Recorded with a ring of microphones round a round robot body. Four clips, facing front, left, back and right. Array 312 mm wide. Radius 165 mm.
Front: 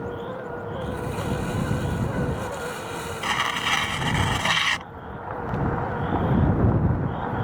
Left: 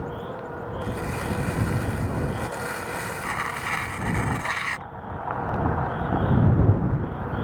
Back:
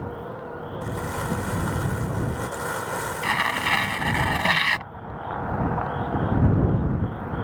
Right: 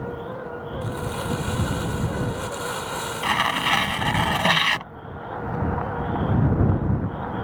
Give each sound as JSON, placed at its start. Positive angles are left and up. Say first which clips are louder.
{"t": 0.8, "sound": "crumpling", "louder": "right 1 dB, back 1 dB", "azimuth_deg": -160}
{"t": 3.2, "sound": "tearing paper", "louder": "right 10 dB, even", "azimuth_deg": -110}